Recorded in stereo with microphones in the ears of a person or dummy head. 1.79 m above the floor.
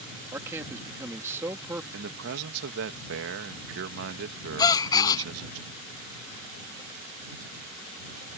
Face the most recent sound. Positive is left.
turn(degrees=25)  # may be behind; listen again after turning